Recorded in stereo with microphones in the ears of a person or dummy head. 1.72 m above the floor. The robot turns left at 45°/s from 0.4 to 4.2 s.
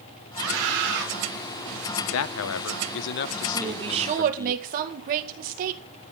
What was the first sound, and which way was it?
A scream, 95° right.